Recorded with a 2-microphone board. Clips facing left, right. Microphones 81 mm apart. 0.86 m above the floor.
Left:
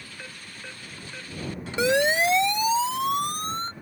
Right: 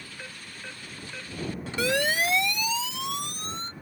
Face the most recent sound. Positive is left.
turn(degrees=40)  # may be behind; listen again after turning